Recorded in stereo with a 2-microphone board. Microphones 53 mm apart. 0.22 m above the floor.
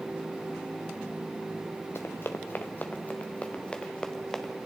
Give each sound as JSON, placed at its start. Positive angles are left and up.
{"t": 1.9, "sound": "running footsteps", "side_deg": 50, "distance_m": 1.5}